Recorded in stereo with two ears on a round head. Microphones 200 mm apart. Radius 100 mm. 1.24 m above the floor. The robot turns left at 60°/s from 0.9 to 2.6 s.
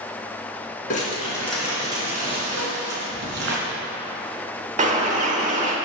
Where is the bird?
35° right (ahead or behind), 1.2 m.